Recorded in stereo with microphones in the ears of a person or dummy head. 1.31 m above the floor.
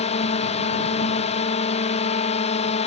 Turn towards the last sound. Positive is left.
turn(degrees=35)  # may be behind; listen again after turning